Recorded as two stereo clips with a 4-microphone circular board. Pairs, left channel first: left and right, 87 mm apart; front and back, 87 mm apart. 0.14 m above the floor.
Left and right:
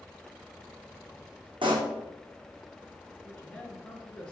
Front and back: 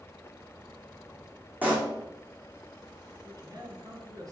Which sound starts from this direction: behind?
A man speaking, at 3.2 s.